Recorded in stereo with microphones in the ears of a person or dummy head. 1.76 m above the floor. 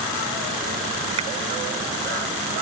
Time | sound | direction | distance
1.2 | a finger snap | 30° right (ahead or behind) | ?